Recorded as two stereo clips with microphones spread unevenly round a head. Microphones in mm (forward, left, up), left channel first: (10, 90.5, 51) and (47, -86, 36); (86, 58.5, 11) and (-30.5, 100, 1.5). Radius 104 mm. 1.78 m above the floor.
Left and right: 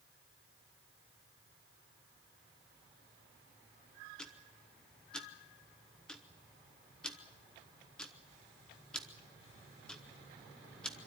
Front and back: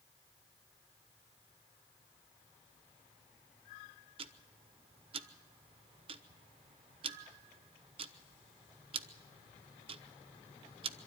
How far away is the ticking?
About 0.7 m.